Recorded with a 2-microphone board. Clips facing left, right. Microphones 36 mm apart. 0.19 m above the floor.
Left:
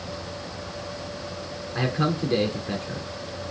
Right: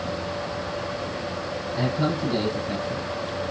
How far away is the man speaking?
About 3 m.